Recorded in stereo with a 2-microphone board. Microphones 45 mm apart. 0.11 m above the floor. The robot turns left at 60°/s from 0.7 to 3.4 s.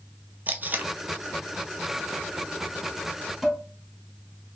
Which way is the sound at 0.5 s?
45° right (ahead or behind).